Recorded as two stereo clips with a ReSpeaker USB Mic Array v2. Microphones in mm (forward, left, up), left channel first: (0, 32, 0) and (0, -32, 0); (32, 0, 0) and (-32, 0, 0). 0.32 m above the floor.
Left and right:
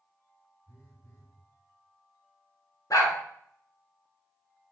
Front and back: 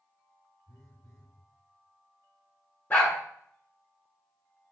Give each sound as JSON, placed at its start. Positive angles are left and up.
{"t": 0.7, "sound": "a phone buzzing", "azimuth_deg": 35, "distance_m": 2.0}
{"t": 2.9, "sound": "a dog barking", "azimuth_deg": 55, "distance_m": 1.3}